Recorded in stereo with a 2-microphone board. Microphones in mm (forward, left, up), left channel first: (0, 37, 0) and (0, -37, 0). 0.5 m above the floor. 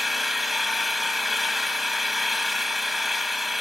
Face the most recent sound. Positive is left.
turn(degrees=0)  # may be behind; listen again after turning